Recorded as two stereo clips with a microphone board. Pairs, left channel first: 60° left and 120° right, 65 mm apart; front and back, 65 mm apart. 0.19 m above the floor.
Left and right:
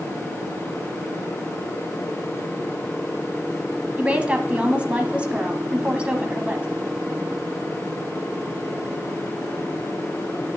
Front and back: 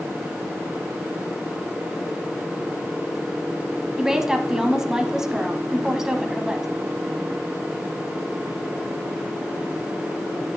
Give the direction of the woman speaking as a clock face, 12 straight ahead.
4 o'clock.